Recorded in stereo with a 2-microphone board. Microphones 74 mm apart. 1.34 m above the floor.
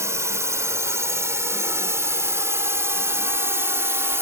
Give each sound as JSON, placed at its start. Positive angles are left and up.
{"t": 0.0, "sound": "a drone", "side_deg": -40}